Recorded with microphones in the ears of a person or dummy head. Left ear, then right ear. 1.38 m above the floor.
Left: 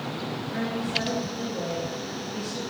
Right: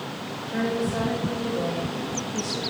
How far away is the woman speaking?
About 2.5 m.